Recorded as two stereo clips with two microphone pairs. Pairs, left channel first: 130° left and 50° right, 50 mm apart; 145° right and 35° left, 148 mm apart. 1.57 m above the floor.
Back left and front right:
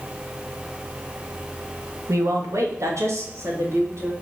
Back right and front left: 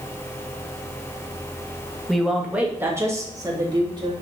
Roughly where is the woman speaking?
Ahead right.